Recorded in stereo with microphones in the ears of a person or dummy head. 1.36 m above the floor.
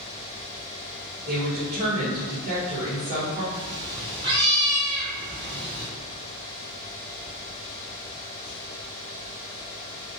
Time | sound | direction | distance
1.3 | a woman speaking | 50° right (ahead or behind) | 1.2 m
3.5 | a cat meowing | 25° right (ahead or behind) | 1.2 m